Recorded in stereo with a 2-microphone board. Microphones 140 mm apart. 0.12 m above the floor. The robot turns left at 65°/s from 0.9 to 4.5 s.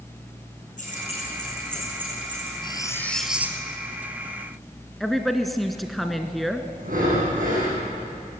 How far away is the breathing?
About 7 m.